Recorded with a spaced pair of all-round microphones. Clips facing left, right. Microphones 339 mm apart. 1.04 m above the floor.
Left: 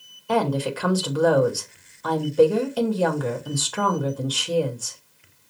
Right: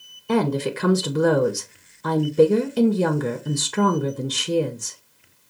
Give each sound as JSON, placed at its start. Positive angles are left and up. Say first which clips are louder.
{"t": 0.3, "sound": "a woman speaking", "louder": "right 2 dB", "side_deg": -30, "distance_m": 0.7}